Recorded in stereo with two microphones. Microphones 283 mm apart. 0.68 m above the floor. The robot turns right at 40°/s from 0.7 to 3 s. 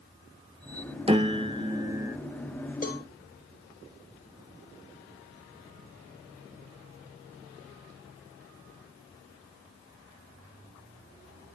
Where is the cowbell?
30° left (ahead or behind), 2 m; by 3.0 s 35° left (ahead or behind), 2 m.